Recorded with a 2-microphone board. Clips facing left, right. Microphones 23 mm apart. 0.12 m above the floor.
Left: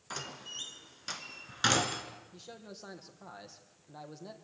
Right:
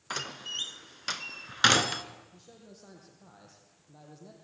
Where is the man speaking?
35° left (ahead or behind), 3.5 m.